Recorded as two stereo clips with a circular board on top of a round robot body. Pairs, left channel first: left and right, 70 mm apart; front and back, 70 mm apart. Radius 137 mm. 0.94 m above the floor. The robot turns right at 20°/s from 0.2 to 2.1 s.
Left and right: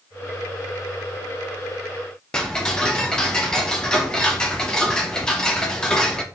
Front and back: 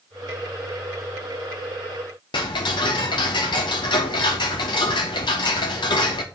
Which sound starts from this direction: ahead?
Ticking, at 2.3 s.